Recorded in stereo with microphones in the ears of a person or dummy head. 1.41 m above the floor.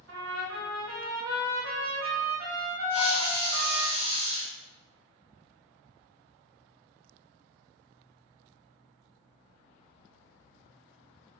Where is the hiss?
15° right (ahead or behind), 1.3 m.